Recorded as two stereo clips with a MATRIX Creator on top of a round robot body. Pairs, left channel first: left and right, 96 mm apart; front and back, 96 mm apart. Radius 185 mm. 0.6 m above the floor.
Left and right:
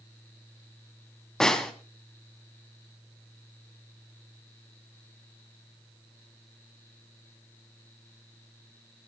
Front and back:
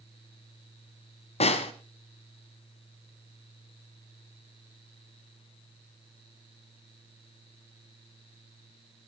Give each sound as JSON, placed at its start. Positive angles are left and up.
{"t": 1.4, "sound": "a snare drum", "azimuth_deg": 5, "distance_m": 1.0}